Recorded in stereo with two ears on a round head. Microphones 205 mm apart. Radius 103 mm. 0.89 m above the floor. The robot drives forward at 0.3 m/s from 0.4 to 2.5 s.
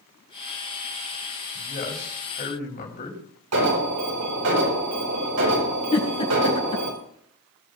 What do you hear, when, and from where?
1.6 s a man speaking: 40° left (ahead or behind), 5 m
3.5 s an alarm: 75° right (ahead or behind), 4.5 m
5.9 s a giggle: 25° left (ahead or behind), 5 m